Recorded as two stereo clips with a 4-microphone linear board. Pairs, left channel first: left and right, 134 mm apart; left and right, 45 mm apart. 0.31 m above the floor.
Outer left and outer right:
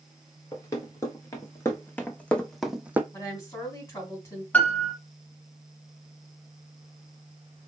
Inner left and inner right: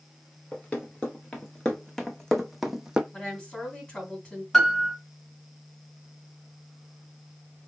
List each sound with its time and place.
0.5 s running footsteps: 25° left (ahead or behind), 1.6 m; by 3.0 s 15° right (ahead or behind), 0.5 m
3.1 s a woman speaking: 20° left (ahead or behind), 3 m
4.5 s a piano: 10° left (ahead or behind), 1.2 m